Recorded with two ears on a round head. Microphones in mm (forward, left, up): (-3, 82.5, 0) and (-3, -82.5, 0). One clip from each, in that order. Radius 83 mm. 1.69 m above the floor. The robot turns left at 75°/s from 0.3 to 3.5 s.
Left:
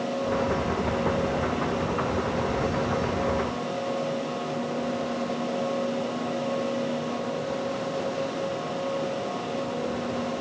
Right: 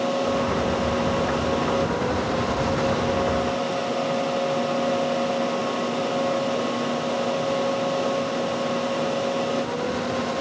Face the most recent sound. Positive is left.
No sound to turn to.